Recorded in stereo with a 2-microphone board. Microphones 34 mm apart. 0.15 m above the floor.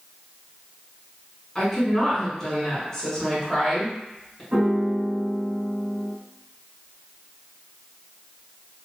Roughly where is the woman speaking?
Centre.